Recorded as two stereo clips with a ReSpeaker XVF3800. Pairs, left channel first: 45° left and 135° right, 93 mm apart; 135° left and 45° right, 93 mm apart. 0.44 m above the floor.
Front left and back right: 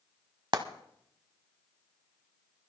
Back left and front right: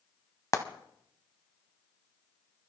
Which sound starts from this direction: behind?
Frying, at 0.5 s.